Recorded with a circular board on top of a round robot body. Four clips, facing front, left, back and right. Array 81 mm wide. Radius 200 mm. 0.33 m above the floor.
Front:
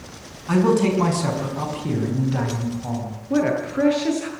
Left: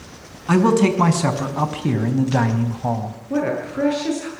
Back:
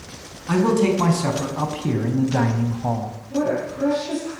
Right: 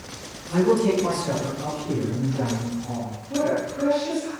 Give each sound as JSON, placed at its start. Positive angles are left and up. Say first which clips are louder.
{"t": 0.5, "sound": "a man speaking", "louder": "left 4 dB, even", "azimuth_deg": 90, "distance_m": 5.5}
{"t": 3.3, "sound": "a woman speaking", "louder": "left 2 dB, front 2 dB", "azimuth_deg": 35, "distance_m": 9.5}